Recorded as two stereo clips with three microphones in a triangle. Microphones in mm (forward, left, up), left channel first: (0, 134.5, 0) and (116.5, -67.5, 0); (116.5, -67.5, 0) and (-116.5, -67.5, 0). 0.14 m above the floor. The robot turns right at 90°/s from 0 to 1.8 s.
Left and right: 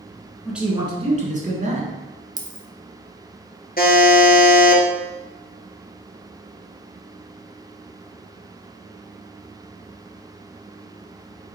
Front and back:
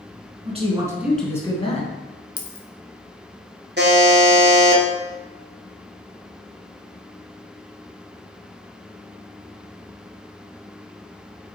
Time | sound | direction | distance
0.5 | a man speaking | 150° right | 1.9 m
2.4 | a dropped coin | 5° right | 1.1 m
3.8 | a buzzer | 155° left | 1.4 m